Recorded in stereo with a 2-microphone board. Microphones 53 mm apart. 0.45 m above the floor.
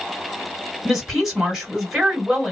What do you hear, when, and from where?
0.8 s a woman speaking: 10° right (ahead or behind), 1.7 m